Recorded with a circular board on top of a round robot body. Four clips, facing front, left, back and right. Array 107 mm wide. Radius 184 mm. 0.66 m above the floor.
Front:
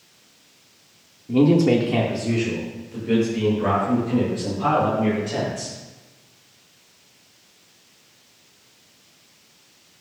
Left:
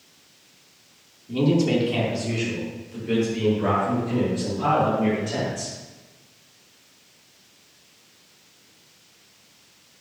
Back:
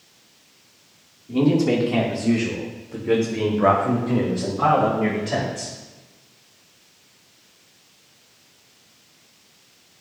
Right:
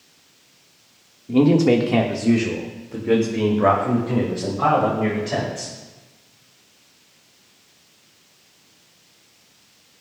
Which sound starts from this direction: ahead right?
A man speaking, at 1.3 s.